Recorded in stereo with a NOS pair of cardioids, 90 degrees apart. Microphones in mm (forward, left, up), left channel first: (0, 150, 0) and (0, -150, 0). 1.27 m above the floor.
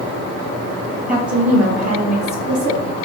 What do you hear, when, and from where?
1.1 s a woman speaking: 25° right, 1.2 m; by 3.0 s 80° right, 2.5 m